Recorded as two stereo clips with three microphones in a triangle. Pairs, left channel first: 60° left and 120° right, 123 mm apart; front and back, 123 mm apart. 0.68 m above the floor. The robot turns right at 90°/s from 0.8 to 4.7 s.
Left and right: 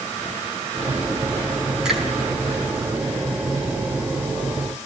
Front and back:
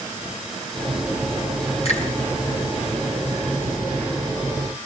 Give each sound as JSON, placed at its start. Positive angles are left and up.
{"t": 1.9, "sound": "a finger snap", "azimuth_deg": -35, "distance_m": 6.0}